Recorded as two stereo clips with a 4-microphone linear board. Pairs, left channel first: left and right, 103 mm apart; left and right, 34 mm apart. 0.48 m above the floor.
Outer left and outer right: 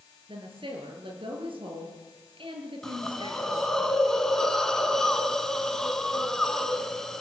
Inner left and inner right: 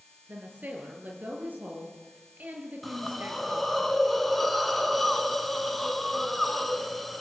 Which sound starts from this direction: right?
A woman speaking, at 0.3 s.